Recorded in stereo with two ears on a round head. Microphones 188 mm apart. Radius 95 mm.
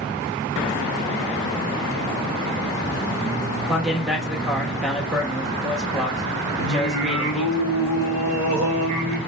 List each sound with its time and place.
3.7 s a man speaking: centre (ahead or behind), 0.8 m
6.6 s singing: 75° right (ahead or behind), 3 m